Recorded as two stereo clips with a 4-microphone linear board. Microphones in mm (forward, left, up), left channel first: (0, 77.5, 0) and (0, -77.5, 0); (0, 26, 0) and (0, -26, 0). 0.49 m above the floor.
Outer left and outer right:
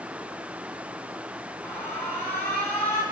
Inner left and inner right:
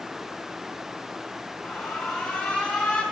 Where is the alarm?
15° left (ahead or behind), 4 m.